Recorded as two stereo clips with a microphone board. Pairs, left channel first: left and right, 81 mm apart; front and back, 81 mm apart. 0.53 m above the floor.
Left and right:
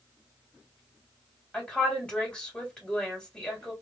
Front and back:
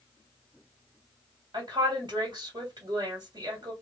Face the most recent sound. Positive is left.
turn(degrees=165)